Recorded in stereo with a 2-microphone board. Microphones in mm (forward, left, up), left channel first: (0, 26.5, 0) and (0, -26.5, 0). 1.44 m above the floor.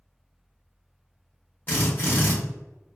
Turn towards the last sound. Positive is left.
turn(degrees=40)  # may be behind; listen again after turning